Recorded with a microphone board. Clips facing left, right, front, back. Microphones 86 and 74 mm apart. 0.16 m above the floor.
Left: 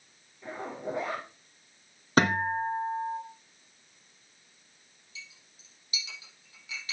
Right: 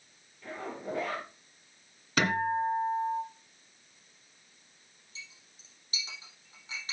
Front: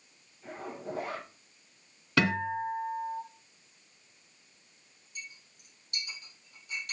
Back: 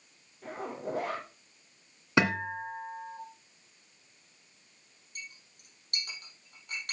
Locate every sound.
0.4 s a zipper: 160° left, 3.5 m
2.2 s a guitar: 120° left, 2 m
5.2 s a clink: 145° right, 4.5 m